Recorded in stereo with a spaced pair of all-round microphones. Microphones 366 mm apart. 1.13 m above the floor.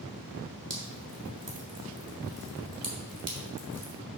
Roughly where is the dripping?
Right.